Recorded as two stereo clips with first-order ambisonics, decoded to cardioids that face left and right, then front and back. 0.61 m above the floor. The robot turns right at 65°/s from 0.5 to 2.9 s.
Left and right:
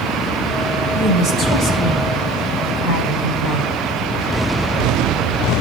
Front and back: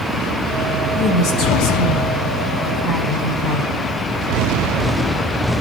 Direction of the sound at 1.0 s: 65° right.